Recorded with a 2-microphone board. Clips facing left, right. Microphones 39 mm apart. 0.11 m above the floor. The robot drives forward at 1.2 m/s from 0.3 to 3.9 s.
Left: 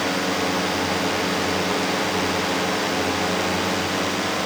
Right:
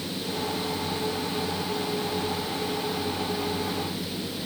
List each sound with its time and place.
0.0 s a drone: 80° left; by 4.5 s 75° left (ahead or behind)